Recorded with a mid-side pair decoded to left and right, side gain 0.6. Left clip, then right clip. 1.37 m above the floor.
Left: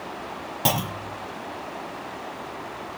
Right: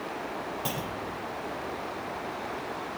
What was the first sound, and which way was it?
A clunk, 55° left.